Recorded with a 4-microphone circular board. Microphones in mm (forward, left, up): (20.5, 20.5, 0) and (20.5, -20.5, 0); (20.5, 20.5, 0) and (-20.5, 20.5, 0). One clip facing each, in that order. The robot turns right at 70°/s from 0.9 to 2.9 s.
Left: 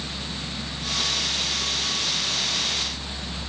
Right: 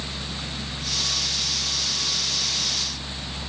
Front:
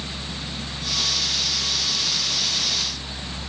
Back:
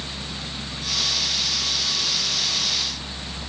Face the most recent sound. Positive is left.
No sound to turn to.